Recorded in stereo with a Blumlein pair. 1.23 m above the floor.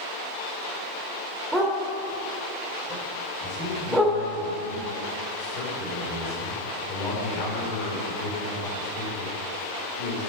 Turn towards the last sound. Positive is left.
turn(degrees=40)